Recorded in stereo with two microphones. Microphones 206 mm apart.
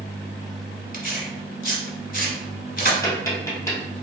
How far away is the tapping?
About 2 m.